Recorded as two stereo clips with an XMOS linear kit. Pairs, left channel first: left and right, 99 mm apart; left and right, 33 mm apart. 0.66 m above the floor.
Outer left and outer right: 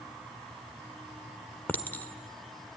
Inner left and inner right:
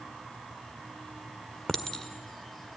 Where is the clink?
20° left (ahead or behind), 1.4 m.